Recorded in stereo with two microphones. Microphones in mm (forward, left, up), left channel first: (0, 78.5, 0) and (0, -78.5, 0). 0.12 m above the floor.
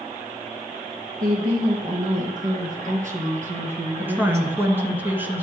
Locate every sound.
1.2 s a woman speaking: 55° right (ahead or behind), 3 m; by 5.0 s 35° right (ahead or behind), 1.5 m
4.0 s a woman speaking: 10° right (ahead or behind), 1.4 m